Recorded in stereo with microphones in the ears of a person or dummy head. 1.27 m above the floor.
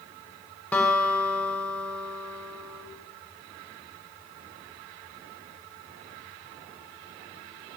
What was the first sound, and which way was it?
A guitar, 5° left (ahead or behind).